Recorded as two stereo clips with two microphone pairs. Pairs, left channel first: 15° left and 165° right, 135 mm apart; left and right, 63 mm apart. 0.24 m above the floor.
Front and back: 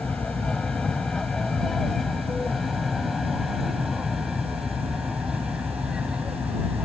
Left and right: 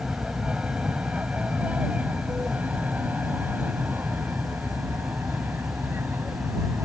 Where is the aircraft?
55° right; by 6.9 s 90° right.